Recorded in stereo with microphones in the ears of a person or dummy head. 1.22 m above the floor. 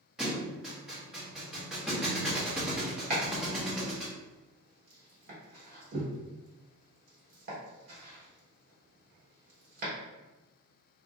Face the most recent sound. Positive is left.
turn(degrees=-45)  # may be behind; listen again after turning